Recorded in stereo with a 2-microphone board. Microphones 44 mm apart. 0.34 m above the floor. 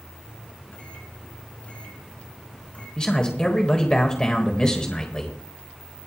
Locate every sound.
0.2 s a microwave: 35° left (ahead or behind), 3.5 m
3.0 s a man speaking: 20° left (ahead or behind), 1.4 m